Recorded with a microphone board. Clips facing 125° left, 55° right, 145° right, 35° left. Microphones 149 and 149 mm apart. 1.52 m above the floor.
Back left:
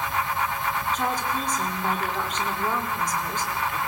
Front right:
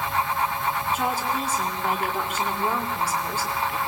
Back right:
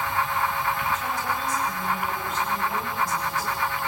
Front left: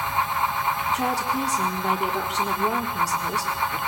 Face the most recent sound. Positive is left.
turn(degrees=25)